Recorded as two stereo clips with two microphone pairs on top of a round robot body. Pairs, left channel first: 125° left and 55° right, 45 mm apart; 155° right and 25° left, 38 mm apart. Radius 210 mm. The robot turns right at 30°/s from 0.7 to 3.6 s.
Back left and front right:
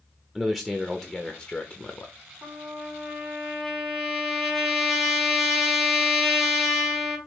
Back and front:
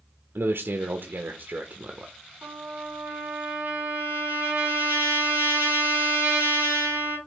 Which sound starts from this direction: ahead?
A trumpet, at 2.4 s.